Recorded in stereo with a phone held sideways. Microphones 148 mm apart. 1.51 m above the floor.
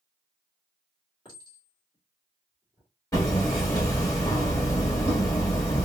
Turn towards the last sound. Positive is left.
turn(degrees=20)  # may be behind; listen again after turning